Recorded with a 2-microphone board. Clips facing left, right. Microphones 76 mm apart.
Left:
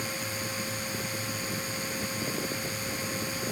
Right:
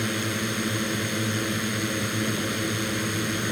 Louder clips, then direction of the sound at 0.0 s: Right 7 dB; 65° right (ahead or behind).